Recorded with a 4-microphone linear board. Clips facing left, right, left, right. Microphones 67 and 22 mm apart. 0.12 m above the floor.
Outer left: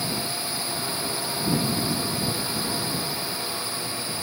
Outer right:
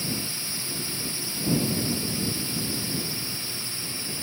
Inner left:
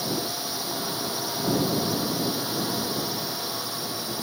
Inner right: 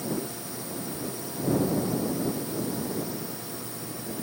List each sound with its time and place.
0.0 s a drone: 55° left (ahead or behind)